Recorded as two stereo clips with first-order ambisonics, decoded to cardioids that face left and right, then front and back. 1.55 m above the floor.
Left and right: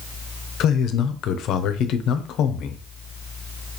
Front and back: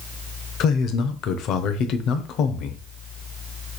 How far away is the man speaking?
About 0.6 m.